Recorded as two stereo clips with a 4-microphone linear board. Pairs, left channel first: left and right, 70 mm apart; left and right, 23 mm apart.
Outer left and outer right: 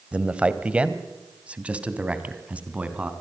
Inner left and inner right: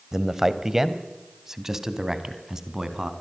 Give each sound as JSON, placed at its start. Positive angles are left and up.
{"t": 0.1, "sound": "a man speaking", "side_deg": -15, "distance_m": 1.5}